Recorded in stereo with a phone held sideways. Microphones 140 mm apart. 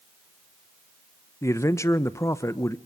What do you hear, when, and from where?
1.4 s a man speaking: 20° left (ahead or behind), 0.8 m